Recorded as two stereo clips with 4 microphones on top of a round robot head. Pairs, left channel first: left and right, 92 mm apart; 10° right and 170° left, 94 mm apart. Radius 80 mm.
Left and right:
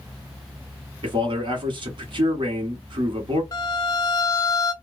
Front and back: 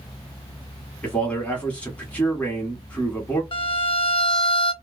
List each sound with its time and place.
1.0 s a man speaking: 85° right, 1.1 m
3.5 s a violin: 30° left, 0.7 m